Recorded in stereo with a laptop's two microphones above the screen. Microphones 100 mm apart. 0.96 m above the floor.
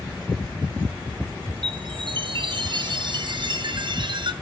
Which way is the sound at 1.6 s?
55° right (ahead or behind).